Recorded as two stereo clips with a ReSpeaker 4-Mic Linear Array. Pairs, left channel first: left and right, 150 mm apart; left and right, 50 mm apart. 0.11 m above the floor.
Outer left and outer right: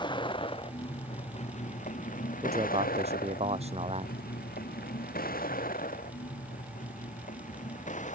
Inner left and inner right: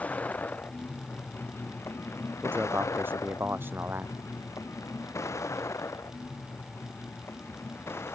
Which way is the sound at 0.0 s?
30° left (ahead or behind).